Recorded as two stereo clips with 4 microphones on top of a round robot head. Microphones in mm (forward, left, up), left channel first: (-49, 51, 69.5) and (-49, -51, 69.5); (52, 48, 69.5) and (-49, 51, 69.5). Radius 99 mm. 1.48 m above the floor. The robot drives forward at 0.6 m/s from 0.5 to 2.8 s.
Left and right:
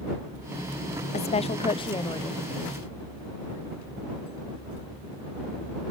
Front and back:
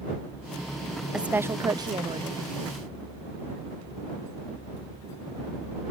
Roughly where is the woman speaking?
Left.